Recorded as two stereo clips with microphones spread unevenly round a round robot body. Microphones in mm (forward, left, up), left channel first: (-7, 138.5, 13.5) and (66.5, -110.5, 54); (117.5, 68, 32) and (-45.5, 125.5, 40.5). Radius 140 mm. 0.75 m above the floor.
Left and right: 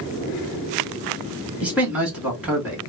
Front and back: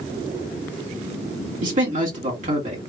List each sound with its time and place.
1.6 s a man speaking: 165° right, 1.3 m